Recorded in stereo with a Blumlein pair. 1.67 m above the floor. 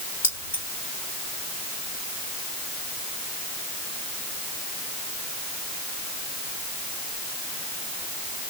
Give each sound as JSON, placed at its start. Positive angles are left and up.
{"t": 0.2, "sound": "keys jangling", "azimuth_deg": 65, "distance_m": 3.5}